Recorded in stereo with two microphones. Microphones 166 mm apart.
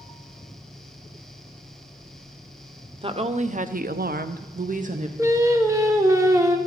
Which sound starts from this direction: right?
A woman speaking, at 3.0 s.